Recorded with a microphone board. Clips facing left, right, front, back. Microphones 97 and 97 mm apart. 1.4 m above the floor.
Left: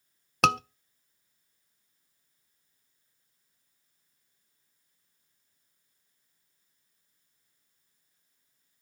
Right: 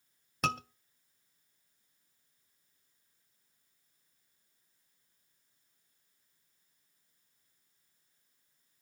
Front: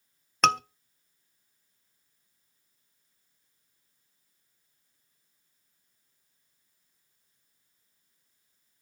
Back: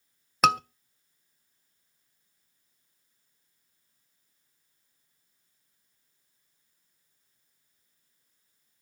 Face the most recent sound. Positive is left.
turn(degrees=95)